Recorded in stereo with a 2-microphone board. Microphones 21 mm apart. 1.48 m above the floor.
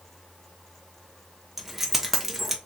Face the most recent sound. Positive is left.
turn(degrees=-10)  # may be behind; listen again after turning